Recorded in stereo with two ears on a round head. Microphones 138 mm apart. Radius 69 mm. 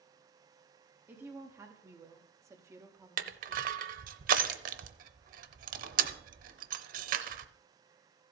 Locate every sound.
1.1 s a woman speaking: 15° right (ahead or behind), 1.2 m
3.2 s crushing: 60° right (ahead or behind), 0.7 m